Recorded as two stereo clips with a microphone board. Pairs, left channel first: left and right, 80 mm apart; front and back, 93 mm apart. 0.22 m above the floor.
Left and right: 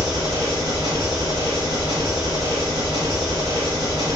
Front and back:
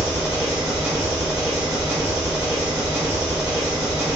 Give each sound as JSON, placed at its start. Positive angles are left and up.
{"t": 0.0, "sound": "an engine running", "azimuth_deg": -100, "distance_m": 1.7}